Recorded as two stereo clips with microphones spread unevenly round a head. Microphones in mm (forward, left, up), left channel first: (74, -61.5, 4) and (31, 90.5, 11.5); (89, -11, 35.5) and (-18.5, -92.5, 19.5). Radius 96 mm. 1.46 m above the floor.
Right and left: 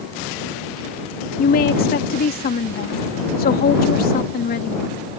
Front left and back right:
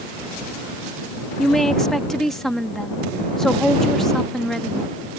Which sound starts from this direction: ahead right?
A woman speaking, at 1.4 s.